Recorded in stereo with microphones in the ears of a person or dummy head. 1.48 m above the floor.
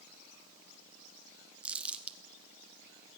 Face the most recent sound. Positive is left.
turn(degrees=-5)  # may be behind; listen again after turning